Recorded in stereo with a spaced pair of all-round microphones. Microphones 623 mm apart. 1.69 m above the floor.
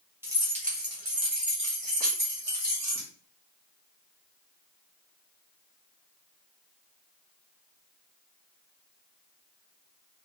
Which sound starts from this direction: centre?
Keys jangling, at 0.2 s.